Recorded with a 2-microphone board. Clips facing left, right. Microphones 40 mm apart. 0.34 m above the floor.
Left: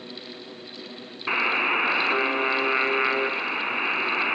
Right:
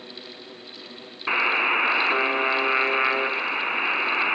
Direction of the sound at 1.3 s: 10° right (ahead or behind).